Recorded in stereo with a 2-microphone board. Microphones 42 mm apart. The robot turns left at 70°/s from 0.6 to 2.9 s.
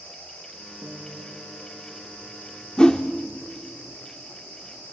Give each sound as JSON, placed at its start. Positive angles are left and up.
{"t": 0.8, "sound": "a guitar", "azimuth_deg": -85, "distance_m": 7.5}
{"t": 2.8, "sound": "a whoosh", "side_deg": 20, "distance_m": 1.0}